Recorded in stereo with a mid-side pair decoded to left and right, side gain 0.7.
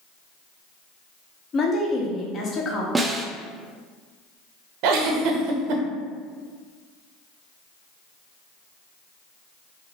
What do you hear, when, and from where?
1.5 s a woman speaking: 35° left, 1.2 m
3.0 s a snare drum: 15° right, 0.6 m
4.8 s a giggle: 65° right, 0.7 m